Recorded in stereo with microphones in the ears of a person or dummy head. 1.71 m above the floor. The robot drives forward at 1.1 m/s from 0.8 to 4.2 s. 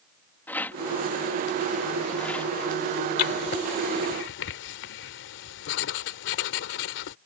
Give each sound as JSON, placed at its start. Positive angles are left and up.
{"t": 0.5, "sound": "a rattle", "side_deg": 10}
{"t": 3.2, "sound": "writing", "side_deg": 45}